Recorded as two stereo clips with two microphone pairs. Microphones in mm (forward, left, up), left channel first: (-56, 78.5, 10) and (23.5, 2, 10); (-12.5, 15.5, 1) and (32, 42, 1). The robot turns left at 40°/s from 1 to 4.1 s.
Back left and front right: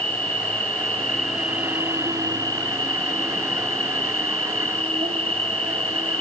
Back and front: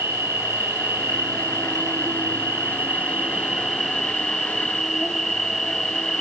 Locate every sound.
0.0 s an insect: 60° left, 0.8 m; by 6.2 s 60° right, 0.8 m